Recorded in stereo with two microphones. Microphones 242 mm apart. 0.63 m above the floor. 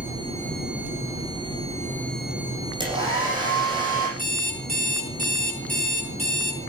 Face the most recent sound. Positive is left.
turn(degrees=35)  # may be behind; listen again after turning